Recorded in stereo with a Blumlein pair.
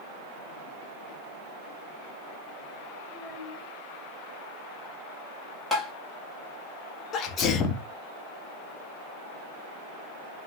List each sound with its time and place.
3.1 s a child speaking: 20° left, 6 m
5.7 s tapping: straight ahead, 2.5 m
7.1 s a sneeze: 25° left, 1.8 m